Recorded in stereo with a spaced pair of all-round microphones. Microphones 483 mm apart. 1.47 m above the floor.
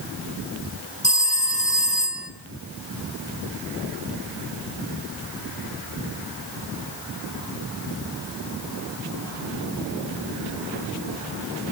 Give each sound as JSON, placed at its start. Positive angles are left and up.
{"t": 1.0, "sound": "a phone ringing", "side_deg": 15, "distance_m": 1.8}